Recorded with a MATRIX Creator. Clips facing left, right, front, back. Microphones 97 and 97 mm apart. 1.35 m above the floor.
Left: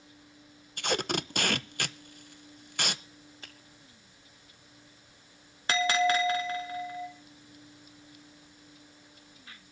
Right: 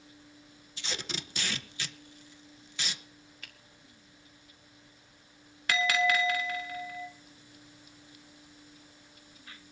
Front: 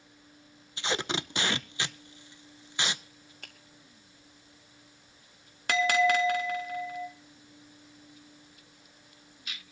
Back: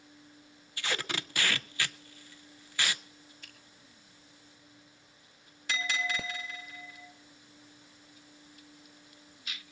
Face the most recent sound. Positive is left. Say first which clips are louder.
# left 2 dB, front 11 dB
turn(degrees=30)